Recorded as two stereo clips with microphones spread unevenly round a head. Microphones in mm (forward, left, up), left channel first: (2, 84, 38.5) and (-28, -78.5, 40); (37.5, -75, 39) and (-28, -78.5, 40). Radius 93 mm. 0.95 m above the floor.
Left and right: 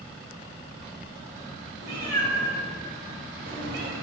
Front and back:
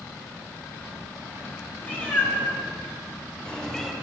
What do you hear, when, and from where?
1.8 s a cat meowing: 60° right, 2 m; by 3.9 s 80° right, 0.8 m